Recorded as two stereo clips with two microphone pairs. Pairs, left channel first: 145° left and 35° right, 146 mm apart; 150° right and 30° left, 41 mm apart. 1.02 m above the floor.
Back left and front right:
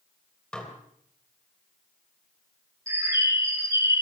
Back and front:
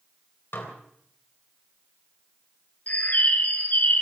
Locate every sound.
0.5 s dishes clattering: 135° right, 3 m
2.9 s a bird: 105° right, 2.5 m